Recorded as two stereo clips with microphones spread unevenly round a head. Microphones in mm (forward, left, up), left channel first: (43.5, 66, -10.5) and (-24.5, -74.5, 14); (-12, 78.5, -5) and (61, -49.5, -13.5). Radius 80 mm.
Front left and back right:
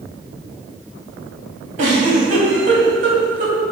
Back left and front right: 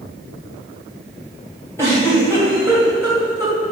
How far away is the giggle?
About 2.5 m.